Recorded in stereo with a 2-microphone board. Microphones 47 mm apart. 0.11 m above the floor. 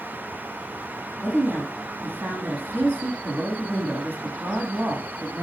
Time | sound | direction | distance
1.2 | a woman speaking | 50° right (ahead or behind) | 5 m